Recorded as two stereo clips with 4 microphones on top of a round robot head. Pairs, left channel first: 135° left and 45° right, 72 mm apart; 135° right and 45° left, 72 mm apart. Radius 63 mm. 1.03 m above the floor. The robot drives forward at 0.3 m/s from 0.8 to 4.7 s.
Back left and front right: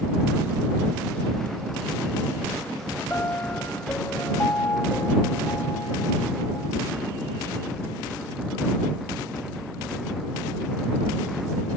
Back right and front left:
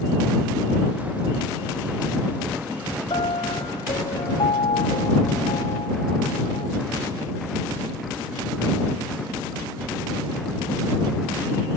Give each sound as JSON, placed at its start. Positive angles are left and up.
{"t": 3.1, "sound": "a piano", "azimuth_deg": -160}